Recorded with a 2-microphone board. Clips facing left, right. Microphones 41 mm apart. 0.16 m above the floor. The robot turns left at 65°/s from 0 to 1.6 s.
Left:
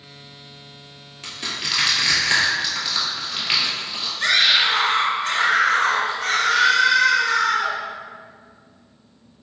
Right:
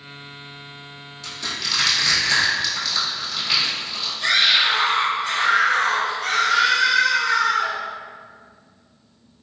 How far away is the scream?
About 1.7 m.